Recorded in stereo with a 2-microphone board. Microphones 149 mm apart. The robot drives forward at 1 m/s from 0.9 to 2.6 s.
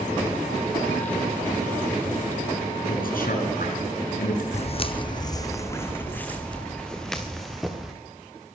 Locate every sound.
2.9 s a man speaking: 75° left (ahead or behind), 4 m
4.5 s footsteps: 50° left (ahead or behind), 0.8 m; by 7.9 s centre (ahead or behind), 2.5 m